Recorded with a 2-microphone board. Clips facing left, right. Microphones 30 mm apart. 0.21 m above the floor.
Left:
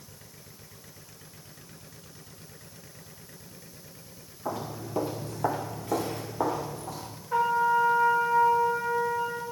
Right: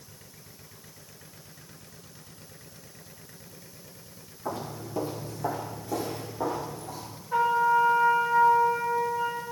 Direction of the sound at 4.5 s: 5° left (ahead or behind).